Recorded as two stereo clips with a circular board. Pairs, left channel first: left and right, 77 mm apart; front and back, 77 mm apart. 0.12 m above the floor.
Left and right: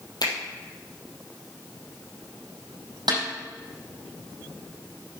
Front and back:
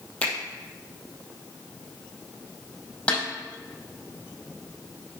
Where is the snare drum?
75° right, 4.5 m.